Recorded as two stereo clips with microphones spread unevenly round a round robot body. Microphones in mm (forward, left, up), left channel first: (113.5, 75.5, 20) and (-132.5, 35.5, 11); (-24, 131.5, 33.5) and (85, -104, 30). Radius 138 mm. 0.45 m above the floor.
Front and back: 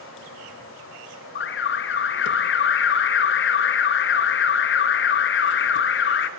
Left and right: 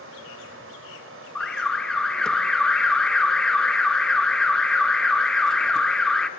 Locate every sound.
0.0 s running water: 30° right, 1.8 m
1.4 s an alarm: 25° left, 0.5 m